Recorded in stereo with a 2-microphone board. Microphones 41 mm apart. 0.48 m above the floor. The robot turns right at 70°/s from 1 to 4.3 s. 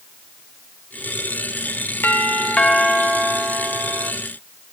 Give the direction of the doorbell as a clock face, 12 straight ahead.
8 o'clock.